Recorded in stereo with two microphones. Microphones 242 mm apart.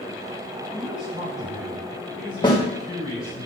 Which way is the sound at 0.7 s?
25° right (ahead or behind).